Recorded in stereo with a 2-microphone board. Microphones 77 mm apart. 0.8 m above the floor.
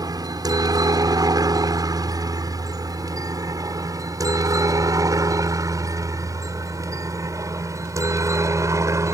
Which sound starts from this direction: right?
A helicopter, at 0.0 s.